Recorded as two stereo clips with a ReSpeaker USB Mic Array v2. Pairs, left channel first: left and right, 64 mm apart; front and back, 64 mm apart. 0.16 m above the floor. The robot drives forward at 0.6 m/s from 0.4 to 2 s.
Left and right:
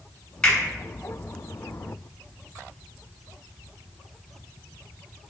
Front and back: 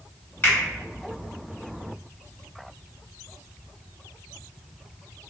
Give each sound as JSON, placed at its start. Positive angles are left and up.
{"t": 0.4, "sound": "a finger snap", "azimuth_deg": 20, "distance_m": 1.7}